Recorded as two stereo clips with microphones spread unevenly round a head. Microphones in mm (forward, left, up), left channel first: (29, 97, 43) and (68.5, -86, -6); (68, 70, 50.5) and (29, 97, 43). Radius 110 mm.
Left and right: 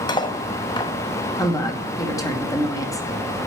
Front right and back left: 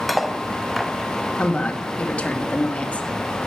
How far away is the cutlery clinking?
About 0.8 m.